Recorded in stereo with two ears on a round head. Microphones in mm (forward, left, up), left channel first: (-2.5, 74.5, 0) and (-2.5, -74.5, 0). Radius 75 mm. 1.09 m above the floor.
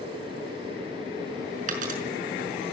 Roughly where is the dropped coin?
Right.